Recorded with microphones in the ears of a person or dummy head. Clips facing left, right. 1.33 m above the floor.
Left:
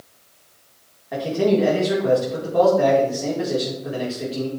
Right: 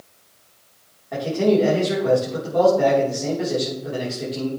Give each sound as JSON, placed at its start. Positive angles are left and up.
{"t": 1.1, "sound": "a man speaking", "side_deg": 5, "distance_m": 3.5}